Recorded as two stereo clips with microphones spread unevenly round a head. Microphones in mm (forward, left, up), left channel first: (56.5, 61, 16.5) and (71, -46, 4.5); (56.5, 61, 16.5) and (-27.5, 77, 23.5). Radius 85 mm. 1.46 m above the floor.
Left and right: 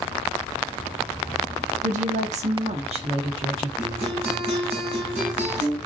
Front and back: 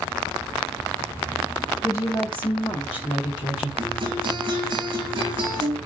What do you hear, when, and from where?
1.8 s a woman speaking: 90° right, 1.1 m; by 3.7 s 45° right, 2 m
3.8 s a guitar: 135° right, 4.5 m